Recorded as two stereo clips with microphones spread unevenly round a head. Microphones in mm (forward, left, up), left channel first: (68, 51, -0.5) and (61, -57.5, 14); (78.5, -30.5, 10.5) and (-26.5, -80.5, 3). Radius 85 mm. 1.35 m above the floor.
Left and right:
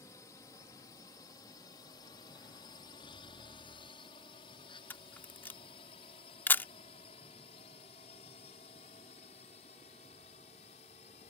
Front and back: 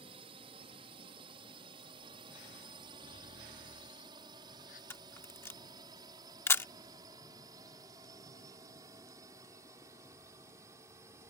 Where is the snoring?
45° left.